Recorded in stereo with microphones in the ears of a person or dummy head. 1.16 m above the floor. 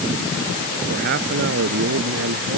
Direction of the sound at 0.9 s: 55° right (ahead or behind).